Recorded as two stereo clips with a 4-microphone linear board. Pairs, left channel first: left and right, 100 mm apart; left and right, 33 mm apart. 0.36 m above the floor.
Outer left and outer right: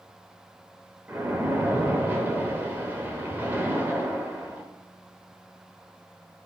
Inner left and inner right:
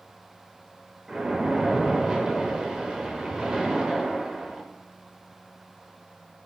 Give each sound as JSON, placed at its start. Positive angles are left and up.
{"t": 1.1, "sound": "a splash", "side_deg": -20, "distance_m": 0.6}